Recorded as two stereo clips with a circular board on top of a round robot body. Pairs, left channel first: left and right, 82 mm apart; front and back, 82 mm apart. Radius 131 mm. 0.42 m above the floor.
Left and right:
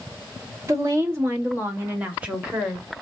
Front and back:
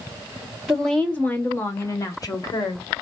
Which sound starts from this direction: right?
A woman speaking, at 0.7 s.